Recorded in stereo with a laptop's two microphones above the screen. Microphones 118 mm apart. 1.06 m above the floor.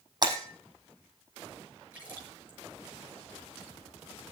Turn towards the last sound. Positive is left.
turn(degrees=-15)  # may be behind; listen again after turning